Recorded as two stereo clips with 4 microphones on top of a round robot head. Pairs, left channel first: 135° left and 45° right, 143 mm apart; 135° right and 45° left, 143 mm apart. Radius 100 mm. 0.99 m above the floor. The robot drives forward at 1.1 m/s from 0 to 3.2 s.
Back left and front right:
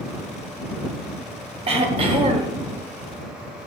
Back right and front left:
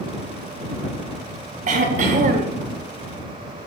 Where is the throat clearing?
5° left, 2.5 m; by 2.6 s 10° left, 1.8 m.